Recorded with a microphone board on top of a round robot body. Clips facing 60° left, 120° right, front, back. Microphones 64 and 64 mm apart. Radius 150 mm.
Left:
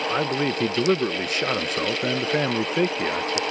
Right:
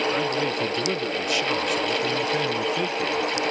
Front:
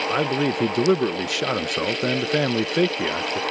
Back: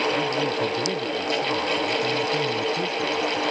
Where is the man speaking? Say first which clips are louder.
Left 1 dB, front 2 dB; 5° left.